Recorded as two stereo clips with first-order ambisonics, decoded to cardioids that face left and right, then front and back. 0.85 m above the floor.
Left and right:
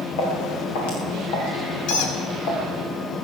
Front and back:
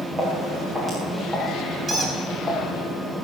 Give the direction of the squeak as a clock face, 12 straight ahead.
8 o'clock.